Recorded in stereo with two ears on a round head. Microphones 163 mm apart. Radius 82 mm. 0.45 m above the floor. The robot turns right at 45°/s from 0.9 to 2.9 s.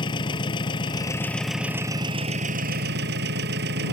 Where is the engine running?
155° left; by 3.9 s 115° right.